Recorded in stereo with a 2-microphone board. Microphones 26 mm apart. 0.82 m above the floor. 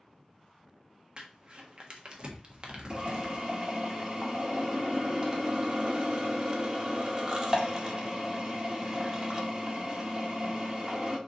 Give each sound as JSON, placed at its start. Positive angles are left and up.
{"t": 1.2, "sound": "crumpling", "side_deg": -40, "distance_m": 1.3}
{"t": 2.9, "sound": "a drill", "side_deg": -30, "distance_m": 1.5}